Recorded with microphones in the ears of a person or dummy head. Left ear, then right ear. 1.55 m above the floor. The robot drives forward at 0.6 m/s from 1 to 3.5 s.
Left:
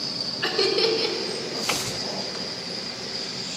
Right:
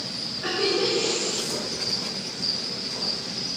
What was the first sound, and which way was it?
Laughter, 70° left (ahead or behind).